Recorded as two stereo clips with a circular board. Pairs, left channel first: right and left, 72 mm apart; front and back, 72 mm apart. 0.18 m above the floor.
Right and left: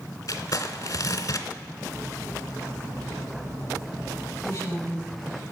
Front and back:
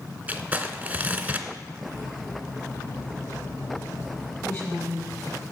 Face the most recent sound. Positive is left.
turn(degrees=-45)